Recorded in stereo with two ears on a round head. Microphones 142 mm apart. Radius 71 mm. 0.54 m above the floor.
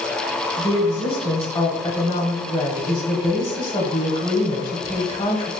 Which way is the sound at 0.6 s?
35° left (ahead or behind).